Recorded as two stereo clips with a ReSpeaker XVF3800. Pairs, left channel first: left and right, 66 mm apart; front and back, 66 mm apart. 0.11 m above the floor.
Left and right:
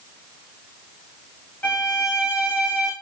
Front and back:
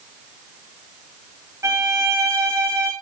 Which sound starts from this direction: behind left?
A violin, at 1.6 s.